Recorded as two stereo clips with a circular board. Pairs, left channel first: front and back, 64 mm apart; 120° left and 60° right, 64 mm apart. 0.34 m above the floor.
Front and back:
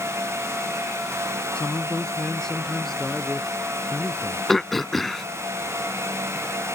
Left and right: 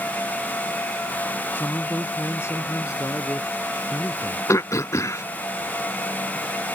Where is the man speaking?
70° left; by 4.4 s 85° left.